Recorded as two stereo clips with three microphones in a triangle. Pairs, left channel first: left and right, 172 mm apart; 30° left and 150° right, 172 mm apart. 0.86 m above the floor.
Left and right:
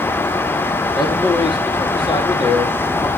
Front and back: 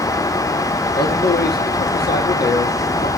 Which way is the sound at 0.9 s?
30° left.